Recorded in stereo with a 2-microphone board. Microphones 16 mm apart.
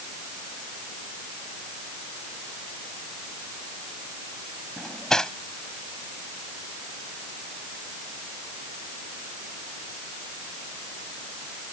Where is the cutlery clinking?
40° left (ahead or behind).